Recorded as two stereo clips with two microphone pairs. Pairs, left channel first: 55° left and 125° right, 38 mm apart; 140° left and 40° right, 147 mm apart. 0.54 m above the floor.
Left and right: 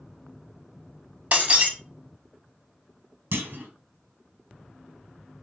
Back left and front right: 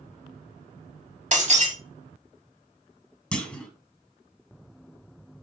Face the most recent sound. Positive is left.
turn(degrees=-135)